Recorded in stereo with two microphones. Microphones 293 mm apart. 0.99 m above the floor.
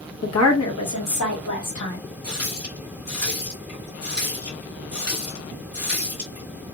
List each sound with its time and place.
0.2 s a woman speaking: 55° left (ahead or behind), 0.9 m; by 2.0 s 75° left (ahead or behind), 1.5 m
2.2 s a running tap: 55° left (ahead or behind), 1.3 m